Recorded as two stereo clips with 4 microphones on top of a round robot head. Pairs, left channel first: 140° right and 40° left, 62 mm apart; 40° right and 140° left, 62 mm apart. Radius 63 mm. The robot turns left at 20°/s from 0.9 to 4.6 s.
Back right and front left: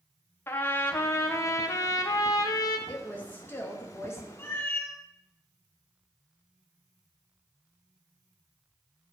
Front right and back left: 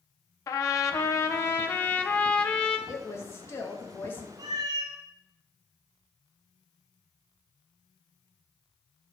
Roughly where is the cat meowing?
Behind.